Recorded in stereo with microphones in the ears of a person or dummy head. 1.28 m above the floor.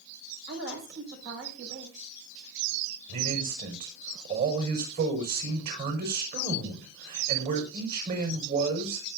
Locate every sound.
0.5 s a woman speaking: 75° right (ahead or behind), 7.5 m
3.1 s a man speaking: 50° right (ahead or behind), 5.5 m